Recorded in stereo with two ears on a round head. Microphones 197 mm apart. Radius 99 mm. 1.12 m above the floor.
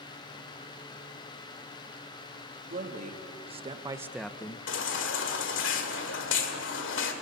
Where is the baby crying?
60° left (ahead or behind), 2.0 m.